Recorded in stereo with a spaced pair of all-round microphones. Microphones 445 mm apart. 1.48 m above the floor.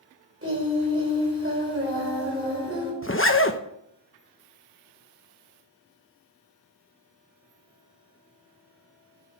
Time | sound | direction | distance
0.4 | singing | 30° right (ahead or behind) | 4.5 m
3.0 | a zipper | 30° left (ahead or behind) | 1.0 m